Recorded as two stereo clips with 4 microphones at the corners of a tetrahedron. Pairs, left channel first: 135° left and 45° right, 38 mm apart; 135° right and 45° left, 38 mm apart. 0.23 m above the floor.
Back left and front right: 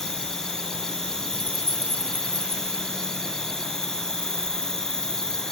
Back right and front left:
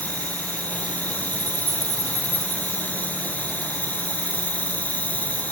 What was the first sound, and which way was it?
An insect, 155° right.